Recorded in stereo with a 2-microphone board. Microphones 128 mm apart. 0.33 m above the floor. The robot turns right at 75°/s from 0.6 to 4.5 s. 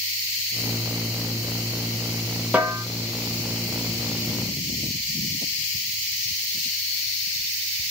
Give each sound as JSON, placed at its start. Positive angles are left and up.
{"t": 2.5, "sound": "a snare drum", "side_deg": -10, "distance_m": 0.7}